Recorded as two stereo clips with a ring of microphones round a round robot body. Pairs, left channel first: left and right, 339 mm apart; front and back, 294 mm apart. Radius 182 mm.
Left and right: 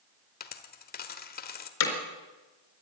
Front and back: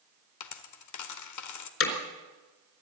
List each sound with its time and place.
0.4 s a dropped coin: 25° left, 1.5 m
1.8 s hammering: 45° left, 4 m